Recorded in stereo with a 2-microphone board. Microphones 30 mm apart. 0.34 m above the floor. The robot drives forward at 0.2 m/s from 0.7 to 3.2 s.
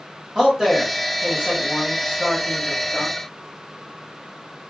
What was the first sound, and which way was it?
A man speaking, 20° right (ahead or behind).